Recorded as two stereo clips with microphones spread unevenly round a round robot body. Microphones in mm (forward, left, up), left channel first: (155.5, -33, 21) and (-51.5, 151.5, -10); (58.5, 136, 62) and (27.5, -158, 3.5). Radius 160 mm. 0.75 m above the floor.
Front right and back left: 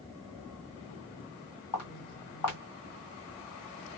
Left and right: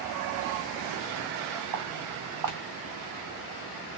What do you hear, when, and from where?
1.7 s footsteps: 70° right, 1.8 m